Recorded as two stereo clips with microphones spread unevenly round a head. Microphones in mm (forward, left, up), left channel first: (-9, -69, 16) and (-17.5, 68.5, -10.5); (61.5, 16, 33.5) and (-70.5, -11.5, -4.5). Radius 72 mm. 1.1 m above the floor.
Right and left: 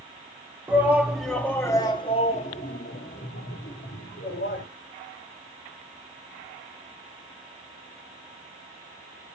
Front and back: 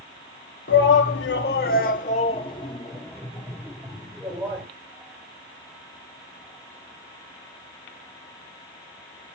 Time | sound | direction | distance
0.7 | a shout | 15° left | 2.5 m